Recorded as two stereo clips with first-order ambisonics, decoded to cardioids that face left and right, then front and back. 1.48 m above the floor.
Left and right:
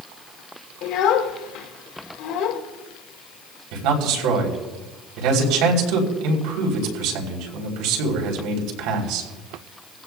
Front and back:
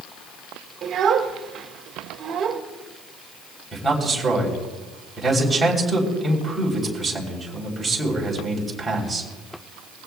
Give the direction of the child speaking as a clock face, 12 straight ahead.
8 o'clock.